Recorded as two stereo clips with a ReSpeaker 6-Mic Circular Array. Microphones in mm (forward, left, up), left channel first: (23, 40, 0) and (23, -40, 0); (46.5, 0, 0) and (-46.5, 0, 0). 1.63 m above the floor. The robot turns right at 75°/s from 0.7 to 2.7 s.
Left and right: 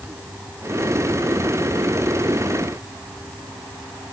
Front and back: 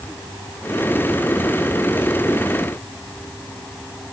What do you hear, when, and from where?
Only background noise.